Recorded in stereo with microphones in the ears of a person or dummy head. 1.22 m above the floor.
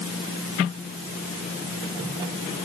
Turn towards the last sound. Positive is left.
No sound to turn to.